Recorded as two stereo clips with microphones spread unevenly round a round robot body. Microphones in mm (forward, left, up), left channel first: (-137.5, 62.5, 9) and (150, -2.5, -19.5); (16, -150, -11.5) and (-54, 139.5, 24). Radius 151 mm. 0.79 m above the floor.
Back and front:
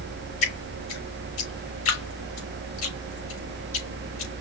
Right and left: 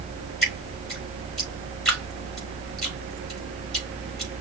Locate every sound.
0.4 s dripping: 165° right, 3.5 m